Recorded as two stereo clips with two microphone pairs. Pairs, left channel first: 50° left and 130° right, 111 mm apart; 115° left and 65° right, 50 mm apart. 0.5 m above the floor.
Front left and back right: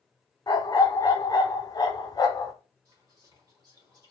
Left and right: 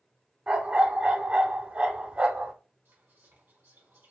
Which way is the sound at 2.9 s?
80° right.